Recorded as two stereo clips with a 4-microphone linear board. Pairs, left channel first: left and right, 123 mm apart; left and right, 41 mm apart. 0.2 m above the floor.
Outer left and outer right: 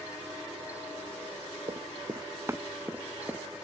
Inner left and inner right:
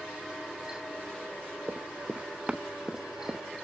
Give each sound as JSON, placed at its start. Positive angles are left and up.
{"t": 1.7, "sound": "running footsteps", "side_deg": -40}